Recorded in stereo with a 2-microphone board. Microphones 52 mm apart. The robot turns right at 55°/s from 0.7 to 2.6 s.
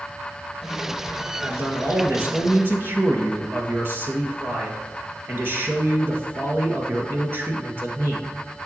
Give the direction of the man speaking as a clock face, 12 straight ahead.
4 o'clock.